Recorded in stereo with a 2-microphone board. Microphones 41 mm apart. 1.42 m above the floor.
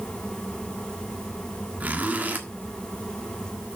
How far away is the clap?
I don't hear a clap.